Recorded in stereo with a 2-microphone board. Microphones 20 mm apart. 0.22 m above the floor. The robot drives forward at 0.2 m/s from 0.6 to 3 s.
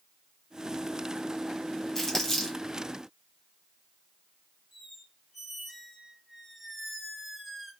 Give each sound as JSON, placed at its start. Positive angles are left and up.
{"t": 1.9, "sound": "crumpling", "side_deg": 25, "distance_m": 1.8}
{"t": 4.7, "sound": "a squeak", "side_deg": 0, "distance_m": 1.2}